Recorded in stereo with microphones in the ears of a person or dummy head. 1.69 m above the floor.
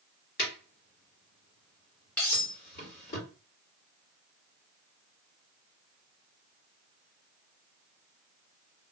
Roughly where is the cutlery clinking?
Centre.